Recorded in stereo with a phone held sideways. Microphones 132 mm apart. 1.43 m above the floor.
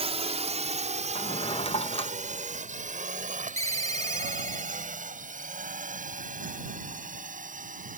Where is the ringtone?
20° left (ahead or behind).